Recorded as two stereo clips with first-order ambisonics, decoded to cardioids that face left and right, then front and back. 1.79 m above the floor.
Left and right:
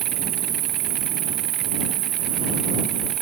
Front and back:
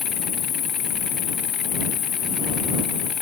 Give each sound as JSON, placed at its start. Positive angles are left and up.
{"t": 0.0, "sound": "an insect", "azimuth_deg": -60}